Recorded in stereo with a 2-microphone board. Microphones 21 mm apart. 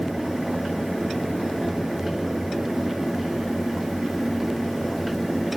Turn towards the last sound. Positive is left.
No sound to turn to.